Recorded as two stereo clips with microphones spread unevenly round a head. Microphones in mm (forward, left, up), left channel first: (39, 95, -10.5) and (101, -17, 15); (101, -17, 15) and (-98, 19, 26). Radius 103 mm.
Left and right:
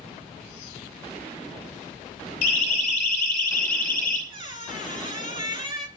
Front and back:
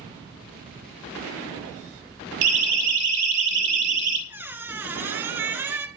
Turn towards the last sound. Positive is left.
turn(degrees=-110)